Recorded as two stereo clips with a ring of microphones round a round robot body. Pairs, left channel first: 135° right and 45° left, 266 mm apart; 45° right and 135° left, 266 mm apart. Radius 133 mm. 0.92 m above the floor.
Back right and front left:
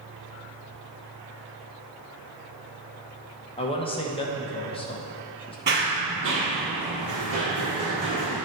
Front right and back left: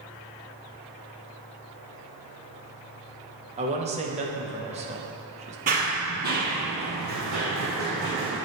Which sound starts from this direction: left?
Running footsteps, at 5.7 s.